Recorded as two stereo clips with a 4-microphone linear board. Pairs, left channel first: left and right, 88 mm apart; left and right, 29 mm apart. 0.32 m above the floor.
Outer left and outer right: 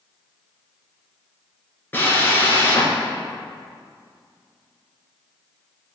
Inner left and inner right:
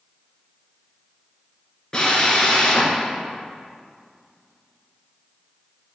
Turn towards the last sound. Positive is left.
turn(degrees=25)  # may be behind; listen again after turning